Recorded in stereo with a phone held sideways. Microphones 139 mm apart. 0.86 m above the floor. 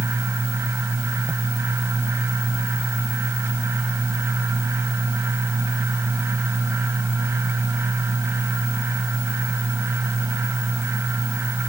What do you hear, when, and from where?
0.0 s a fan: 20° right (ahead or behind)